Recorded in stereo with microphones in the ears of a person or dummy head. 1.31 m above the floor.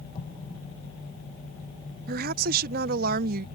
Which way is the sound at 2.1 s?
50° right (ahead or behind).